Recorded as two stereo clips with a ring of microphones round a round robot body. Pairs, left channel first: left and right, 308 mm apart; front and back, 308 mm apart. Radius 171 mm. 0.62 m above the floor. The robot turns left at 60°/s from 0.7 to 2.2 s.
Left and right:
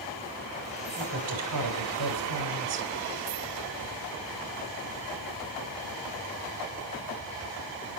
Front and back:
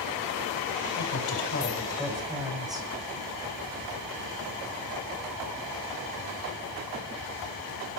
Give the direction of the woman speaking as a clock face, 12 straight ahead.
1 o'clock.